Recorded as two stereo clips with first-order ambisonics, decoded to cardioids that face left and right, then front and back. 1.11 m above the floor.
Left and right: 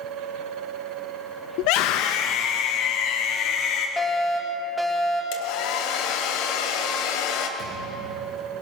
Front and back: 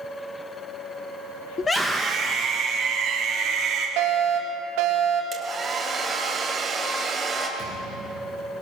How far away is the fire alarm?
About 3.5 m.